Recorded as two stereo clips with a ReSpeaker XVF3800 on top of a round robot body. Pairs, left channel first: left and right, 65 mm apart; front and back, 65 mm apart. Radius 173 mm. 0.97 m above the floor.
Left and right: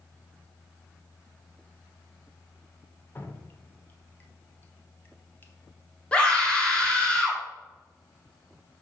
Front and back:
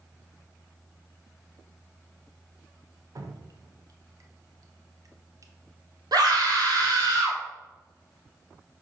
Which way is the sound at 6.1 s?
165° left.